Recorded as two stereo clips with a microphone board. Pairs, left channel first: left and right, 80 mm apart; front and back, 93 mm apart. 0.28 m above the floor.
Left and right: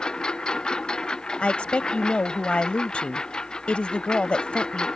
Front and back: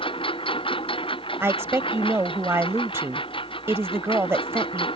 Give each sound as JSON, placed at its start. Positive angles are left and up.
{"t": 0.0, "sound": "a lawn mower", "azimuth_deg": 10}
{"t": 1.4, "sound": "a woman speaking", "azimuth_deg": 150}